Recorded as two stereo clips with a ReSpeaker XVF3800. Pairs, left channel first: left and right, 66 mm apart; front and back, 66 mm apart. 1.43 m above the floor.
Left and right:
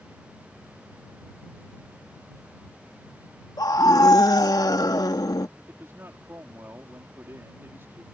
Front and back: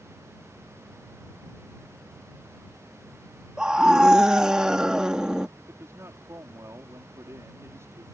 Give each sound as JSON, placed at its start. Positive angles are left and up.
{"t": 3.6, "sound": "a scream", "azimuth_deg": 100}
{"t": 5.6, "sound": "a man speaking", "azimuth_deg": -140}